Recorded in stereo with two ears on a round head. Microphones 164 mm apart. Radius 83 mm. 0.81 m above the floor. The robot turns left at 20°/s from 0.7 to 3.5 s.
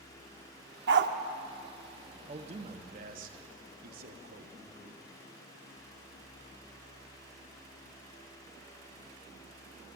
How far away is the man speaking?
About 0.9 m.